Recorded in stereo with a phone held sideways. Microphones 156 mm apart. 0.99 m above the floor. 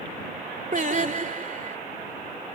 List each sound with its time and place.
0.7 s singing: 55° right (ahead or behind)